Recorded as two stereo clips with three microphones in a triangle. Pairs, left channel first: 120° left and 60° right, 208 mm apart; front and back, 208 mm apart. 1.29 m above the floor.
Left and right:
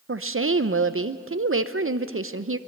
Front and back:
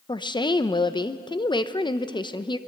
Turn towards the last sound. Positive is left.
turn(degrees=-65)